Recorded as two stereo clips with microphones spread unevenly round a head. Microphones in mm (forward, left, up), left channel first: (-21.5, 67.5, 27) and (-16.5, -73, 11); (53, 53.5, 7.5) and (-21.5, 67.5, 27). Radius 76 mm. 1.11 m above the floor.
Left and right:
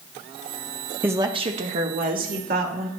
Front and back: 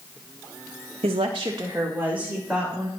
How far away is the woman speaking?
About 1.0 m.